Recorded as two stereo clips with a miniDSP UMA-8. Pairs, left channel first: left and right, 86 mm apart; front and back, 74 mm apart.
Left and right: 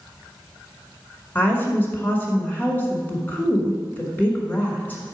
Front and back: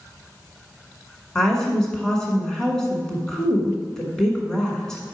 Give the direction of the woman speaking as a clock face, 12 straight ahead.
10 o'clock.